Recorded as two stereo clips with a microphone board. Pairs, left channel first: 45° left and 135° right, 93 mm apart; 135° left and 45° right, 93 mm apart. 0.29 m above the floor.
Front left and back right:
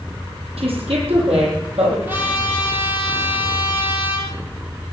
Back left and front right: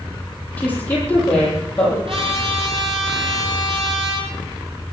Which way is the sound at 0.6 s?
150° right.